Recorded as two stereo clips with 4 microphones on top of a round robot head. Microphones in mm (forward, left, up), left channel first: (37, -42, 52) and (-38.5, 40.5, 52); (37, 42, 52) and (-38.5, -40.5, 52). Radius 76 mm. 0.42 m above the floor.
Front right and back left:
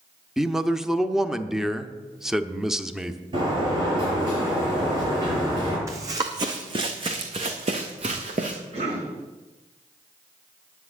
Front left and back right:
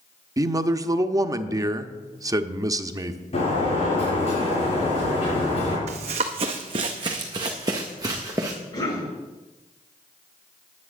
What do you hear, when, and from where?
0.4 s a man speaking: 145° right, 0.8 m
3.3 s a sliding door: 85° left, 7 m
5.9 s running footsteps: 165° right, 1.2 m; by 8.6 s 165° left, 2.5 m
8.7 s a cough: 105° left, 6.5 m